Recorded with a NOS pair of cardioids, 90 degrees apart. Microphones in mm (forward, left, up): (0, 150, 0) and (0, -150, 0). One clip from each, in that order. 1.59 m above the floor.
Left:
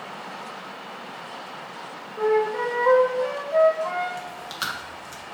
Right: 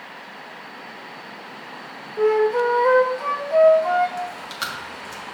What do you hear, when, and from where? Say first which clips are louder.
2.2 s a flute: right 4 dB; 45° right, 1.9 m
4.2 s chewing: right 3 dB; straight ahead, 1.9 m